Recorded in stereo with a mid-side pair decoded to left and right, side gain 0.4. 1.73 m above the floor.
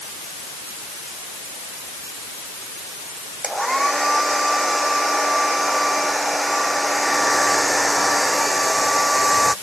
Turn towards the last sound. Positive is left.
turn(degrees=-10)